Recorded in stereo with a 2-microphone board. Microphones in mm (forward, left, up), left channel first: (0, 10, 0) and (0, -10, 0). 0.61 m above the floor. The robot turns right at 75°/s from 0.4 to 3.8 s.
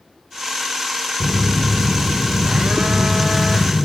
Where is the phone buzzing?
160° right, 0.7 m; by 3.9 s 35° left, 0.7 m.